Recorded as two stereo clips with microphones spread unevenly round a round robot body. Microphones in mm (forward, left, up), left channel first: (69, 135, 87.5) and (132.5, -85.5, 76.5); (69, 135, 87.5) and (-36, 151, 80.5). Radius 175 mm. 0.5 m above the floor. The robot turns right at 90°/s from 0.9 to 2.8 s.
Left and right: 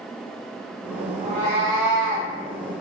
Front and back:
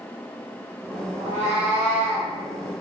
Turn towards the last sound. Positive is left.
turn(degrees=-35)